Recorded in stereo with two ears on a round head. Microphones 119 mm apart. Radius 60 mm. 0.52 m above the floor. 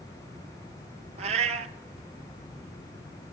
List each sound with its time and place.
1.2 s a cat meowing: 55° right (ahead or behind), 0.9 m